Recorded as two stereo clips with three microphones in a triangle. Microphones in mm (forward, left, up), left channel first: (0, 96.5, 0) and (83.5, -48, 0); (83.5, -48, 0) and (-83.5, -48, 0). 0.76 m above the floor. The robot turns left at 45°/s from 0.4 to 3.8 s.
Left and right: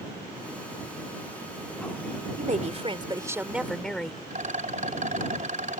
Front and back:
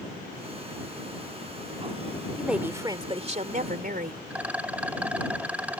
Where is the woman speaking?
90° right; by 4.2 s 155° right.